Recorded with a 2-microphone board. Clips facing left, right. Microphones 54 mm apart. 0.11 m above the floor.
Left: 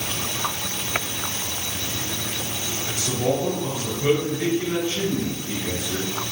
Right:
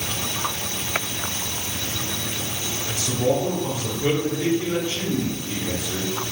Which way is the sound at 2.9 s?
20° left (ahead or behind).